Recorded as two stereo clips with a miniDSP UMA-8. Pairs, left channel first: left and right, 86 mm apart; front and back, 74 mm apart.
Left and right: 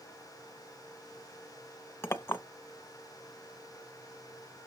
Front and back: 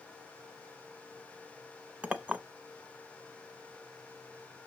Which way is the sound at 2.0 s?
120° left.